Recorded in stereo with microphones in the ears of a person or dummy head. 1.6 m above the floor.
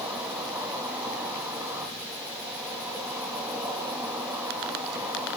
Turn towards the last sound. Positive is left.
turn(degrees=-5)  # may be behind; listen again after turning